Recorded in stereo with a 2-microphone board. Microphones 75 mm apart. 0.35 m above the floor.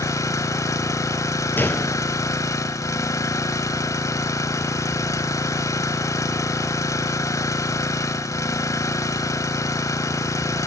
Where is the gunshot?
25° left (ahead or behind), 2 m.